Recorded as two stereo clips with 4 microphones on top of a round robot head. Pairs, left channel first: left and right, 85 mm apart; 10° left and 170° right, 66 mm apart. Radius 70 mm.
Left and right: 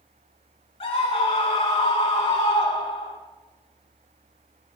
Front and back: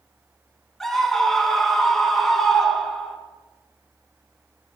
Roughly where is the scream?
Left.